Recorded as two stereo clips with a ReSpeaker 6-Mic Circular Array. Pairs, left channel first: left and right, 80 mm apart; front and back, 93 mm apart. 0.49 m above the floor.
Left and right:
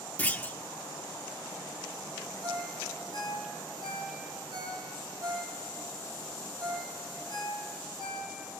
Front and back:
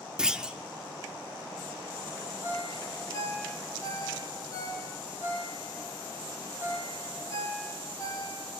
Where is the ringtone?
55° right, 9.5 m.